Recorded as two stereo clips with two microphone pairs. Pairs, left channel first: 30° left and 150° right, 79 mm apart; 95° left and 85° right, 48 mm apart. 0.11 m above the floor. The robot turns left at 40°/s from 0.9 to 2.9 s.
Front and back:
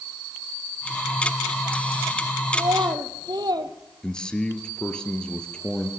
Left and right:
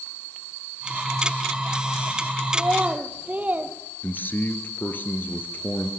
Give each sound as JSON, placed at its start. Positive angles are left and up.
{"t": 2.5, "sound": "a child speaking", "azimuth_deg": -125, "distance_m": 2.5}
{"t": 4.0, "sound": "a man speaking", "azimuth_deg": 105, "distance_m": 2.0}